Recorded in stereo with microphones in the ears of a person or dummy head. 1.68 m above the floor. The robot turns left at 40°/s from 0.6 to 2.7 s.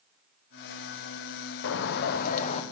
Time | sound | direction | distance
1.6 | a bird | 75° left | 0.6 m